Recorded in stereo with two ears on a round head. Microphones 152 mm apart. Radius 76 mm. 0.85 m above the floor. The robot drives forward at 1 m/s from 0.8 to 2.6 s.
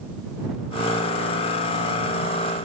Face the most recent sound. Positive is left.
No sound to turn to.